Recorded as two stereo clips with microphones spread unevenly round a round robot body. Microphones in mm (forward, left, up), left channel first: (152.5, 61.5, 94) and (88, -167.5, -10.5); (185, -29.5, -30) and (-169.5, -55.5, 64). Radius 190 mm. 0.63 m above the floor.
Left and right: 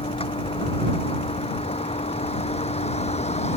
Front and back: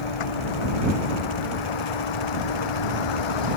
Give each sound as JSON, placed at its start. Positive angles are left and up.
{"t": 0.0, "sound": "a vehicle", "azimuth_deg": 10}